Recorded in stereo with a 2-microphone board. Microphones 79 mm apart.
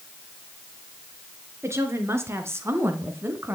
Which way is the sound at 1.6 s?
35° right (ahead or behind).